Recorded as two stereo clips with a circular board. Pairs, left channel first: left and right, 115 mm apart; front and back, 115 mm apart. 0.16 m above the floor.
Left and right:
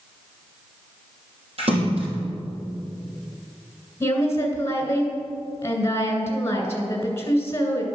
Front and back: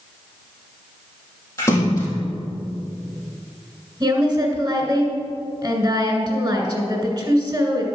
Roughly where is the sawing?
No sawing in this recording.